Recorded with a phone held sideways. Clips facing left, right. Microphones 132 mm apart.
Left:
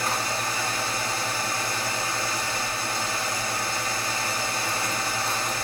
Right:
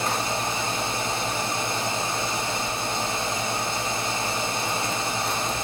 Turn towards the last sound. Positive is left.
turn(degrees=-25)  # may be behind; listen again after turning